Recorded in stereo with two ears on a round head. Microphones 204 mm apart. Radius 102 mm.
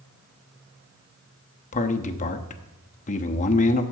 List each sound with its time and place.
1.7 s a man speaking: 35° left (ahead or behind), 0.8 m